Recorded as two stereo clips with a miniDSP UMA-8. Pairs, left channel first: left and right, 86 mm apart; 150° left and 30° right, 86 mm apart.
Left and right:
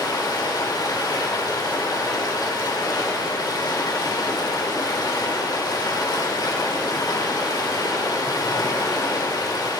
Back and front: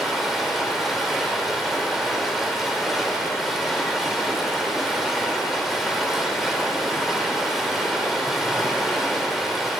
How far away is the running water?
About 1.8 m.